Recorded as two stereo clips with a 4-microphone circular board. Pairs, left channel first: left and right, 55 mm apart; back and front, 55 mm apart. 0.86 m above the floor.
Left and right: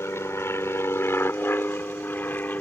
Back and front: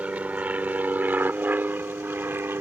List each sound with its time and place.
0.0 s an aircraft: 60° left; by 2.6 s 35° left